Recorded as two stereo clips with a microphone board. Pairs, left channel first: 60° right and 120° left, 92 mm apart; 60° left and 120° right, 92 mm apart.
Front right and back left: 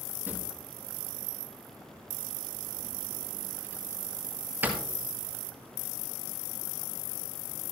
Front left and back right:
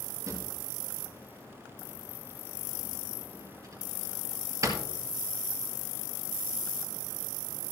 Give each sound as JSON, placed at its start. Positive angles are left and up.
{"t": 0.3, "sound": "a drawer", "azimuth_deg": -170, "distance_m": 2.0}